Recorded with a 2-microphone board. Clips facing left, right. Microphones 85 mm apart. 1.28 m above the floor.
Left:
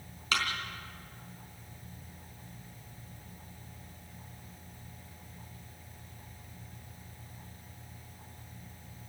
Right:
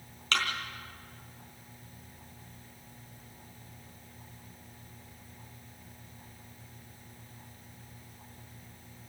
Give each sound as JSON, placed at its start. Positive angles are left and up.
{"t": 0.3, "sound": "a thud", "side_deg": 10, "distance_m": 4.0}